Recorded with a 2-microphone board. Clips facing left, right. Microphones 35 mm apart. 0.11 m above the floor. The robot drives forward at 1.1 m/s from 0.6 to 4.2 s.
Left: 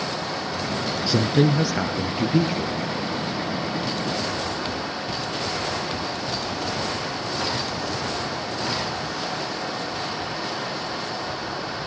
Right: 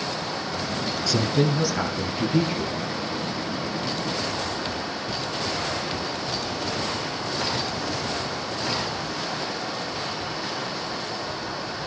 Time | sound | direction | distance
1.1 | a woman speaking | 25° left (ahead or behind) | 1.1 m